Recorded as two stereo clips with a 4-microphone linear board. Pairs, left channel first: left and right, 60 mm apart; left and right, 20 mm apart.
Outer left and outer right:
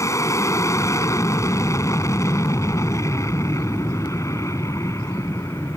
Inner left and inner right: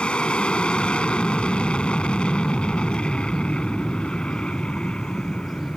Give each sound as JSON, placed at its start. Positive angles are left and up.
{"t": 0.0, "sound": "an aircraft", "side_deg": 55}